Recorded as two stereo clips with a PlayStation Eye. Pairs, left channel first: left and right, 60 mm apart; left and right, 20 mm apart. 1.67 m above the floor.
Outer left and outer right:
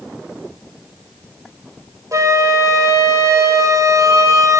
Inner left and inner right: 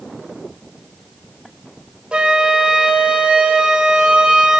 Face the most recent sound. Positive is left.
turn(degrees=-55)  # may be behind; listen again after turning